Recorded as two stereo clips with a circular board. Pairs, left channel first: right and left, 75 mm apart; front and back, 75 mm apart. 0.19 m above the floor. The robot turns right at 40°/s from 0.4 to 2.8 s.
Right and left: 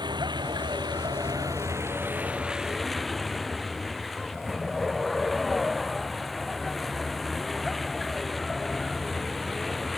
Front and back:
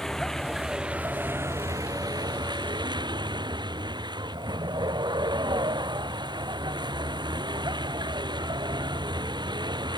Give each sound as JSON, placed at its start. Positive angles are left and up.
{"t": 0.0, "sound": "a vehicle", "azimuth_deg": 85}